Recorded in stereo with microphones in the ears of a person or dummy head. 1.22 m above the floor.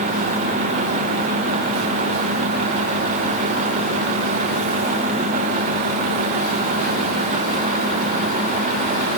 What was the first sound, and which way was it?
Only background noise.